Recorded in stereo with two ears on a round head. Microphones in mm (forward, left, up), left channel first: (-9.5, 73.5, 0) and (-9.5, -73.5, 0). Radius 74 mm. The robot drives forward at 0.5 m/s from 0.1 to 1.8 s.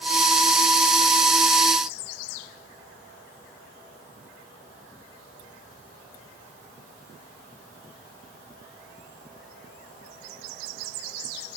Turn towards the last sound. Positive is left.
No sound to turn to.